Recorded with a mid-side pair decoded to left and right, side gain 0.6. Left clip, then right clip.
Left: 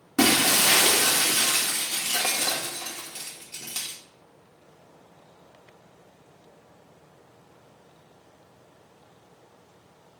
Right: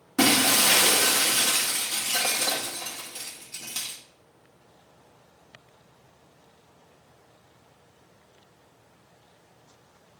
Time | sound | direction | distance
0.2 | breaking glass | 15° left | 1.9 m